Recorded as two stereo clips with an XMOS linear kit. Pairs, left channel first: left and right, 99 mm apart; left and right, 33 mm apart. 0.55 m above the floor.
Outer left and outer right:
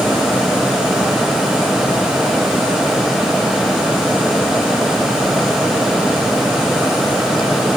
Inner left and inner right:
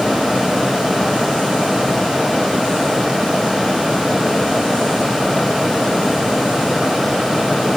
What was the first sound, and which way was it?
Only background noise.